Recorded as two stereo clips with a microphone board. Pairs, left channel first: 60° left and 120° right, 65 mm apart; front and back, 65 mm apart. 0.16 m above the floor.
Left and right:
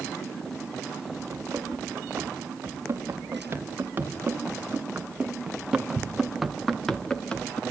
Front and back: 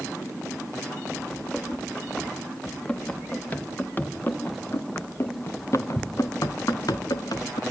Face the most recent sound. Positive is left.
turn(degrees=-15)